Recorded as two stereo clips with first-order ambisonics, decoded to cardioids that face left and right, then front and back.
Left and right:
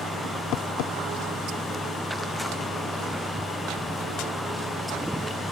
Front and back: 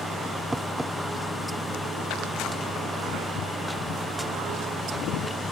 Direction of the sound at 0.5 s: 95° left.